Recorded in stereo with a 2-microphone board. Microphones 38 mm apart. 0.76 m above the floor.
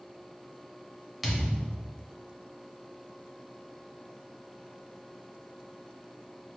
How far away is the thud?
About 0.9 m.